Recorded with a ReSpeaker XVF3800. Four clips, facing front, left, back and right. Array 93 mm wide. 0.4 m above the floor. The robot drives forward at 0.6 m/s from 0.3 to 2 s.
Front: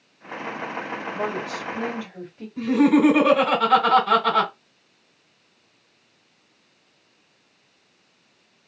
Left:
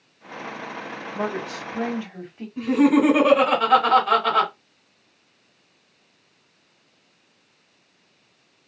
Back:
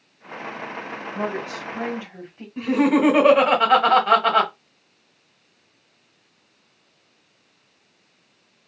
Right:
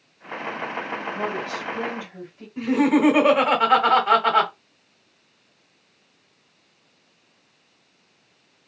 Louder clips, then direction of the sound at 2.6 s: Left 1 dB, front 1 dB; 155° right.